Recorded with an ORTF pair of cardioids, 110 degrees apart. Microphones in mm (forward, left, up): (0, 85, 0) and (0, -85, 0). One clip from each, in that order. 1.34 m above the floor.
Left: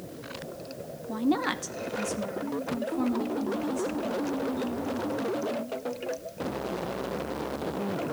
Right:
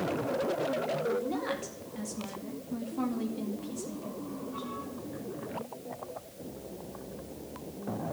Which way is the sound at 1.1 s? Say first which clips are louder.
Left 3 dB; 65° left.